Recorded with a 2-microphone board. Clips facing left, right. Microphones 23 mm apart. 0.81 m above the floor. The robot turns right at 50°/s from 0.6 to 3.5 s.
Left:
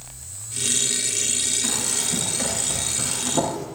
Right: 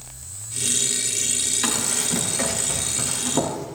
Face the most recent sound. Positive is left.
turn(degrees=-10)  # may be behind; listen again after turning